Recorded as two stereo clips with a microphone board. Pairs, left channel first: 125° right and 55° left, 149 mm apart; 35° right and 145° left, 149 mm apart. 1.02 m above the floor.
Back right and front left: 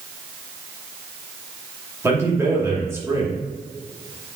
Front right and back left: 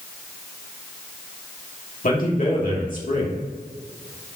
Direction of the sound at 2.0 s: 15° right.